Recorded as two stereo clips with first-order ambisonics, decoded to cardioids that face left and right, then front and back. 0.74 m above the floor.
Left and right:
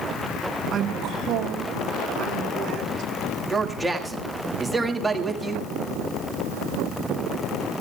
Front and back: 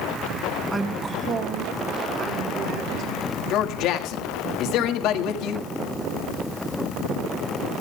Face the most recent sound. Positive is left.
turn(degrees=-5)